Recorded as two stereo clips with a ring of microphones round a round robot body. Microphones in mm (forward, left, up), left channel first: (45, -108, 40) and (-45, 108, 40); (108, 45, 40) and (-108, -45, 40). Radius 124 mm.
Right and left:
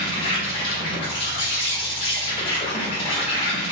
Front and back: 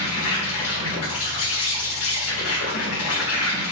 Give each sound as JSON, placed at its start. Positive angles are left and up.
{"t": 0.0, "sound": "an insect", "azimuth_deg": 0, "distance_m": 1.8}